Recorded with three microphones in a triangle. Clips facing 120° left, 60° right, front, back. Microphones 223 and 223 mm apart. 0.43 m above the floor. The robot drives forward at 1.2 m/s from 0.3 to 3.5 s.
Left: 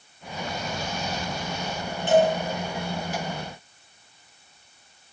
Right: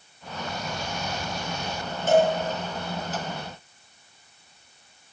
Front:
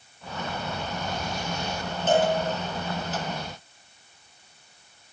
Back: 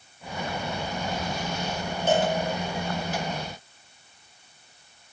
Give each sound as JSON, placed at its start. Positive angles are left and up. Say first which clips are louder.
{"t": 2.1, "sound": "a cowbell", "louder": "even, front 1 dB", "azimuth_deg": -100, "distance_m": 3.5}